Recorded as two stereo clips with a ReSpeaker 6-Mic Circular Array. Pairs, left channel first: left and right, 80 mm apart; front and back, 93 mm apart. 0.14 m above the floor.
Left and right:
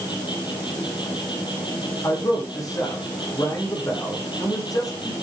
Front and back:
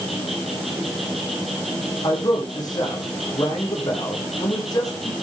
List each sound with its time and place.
0.0 s an insect: 90° left, 8 m
2.0 s a man speaking: 45° left, 9 m